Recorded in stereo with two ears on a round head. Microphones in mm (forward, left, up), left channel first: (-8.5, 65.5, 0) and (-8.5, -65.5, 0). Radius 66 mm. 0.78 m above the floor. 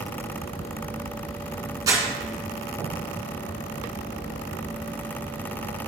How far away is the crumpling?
About 2.5 m.